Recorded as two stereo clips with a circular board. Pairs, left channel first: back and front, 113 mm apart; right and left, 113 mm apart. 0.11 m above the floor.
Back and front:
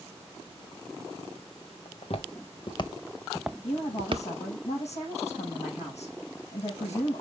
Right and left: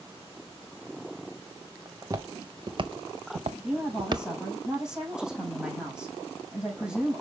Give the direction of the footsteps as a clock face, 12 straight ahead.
7 o'clock.